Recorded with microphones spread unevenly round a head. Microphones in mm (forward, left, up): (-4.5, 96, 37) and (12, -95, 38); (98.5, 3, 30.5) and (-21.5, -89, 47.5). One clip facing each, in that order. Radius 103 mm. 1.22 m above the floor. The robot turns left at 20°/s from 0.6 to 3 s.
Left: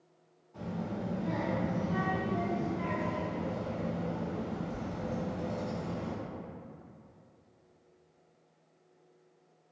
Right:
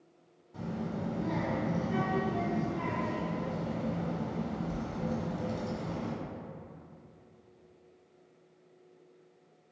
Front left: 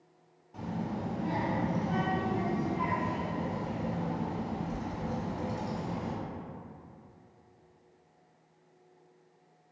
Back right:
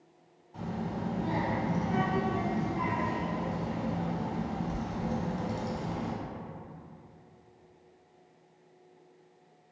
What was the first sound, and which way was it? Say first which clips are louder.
A child speaking: right 1 dB, even; 30° right.